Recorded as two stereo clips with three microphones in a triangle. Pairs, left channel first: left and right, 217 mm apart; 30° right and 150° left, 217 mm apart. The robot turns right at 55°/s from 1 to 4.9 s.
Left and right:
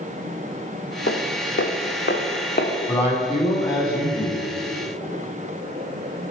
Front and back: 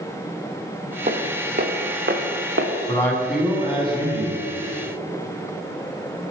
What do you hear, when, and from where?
1.1 s footsteps: 100° left, 1.0 m; by 2.7 s 135° left, 1.1 m
2.9 s a man speaking: 35° left, 2.0 m; by 4.4 s 115° left, 2.0 m